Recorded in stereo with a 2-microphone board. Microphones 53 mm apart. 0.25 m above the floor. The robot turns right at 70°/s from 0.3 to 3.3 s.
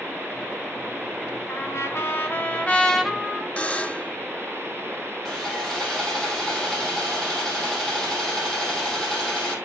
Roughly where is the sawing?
Centre.